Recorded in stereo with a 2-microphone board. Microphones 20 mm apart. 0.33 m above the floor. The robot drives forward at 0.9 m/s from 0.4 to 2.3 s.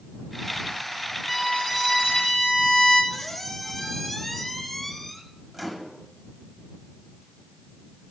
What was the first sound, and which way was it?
A violin, 15° left (ahead or behind).